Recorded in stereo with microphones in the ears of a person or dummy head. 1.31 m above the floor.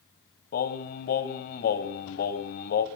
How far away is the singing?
About 1.0 m.